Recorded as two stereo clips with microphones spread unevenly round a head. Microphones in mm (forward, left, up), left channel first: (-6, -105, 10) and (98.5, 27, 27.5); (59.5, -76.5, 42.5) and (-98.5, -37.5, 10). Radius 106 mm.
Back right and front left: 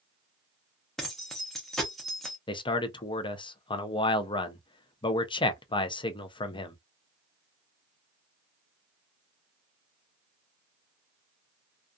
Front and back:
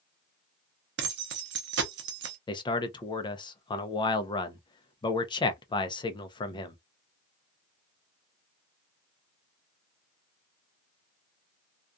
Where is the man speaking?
65° right, 0.5 m.